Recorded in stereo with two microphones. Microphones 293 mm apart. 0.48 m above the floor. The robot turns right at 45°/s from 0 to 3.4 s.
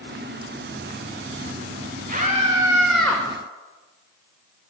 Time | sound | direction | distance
2.1 | a scream | 40° right | 1.5 m